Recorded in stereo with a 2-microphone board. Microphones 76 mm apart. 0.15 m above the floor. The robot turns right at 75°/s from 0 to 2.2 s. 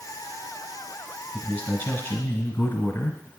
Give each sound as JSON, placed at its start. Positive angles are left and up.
{"t": 1.3, "sound": "a man speaking", "side_deg": 15, "distance_m": 1.1}